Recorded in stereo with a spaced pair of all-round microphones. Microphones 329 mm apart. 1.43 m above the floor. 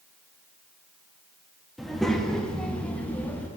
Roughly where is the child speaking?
Centre.